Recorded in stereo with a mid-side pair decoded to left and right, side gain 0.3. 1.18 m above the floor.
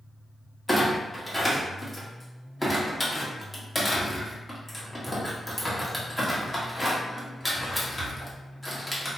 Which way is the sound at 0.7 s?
20° left.